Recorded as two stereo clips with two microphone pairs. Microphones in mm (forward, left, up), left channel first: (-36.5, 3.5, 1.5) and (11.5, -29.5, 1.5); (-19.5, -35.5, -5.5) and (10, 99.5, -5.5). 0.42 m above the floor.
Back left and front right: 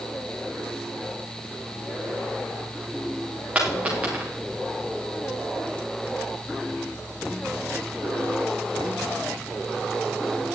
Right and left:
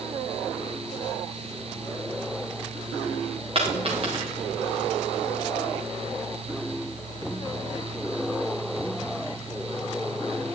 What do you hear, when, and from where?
3.5 s a dropped coin: 30° left, 4.5 m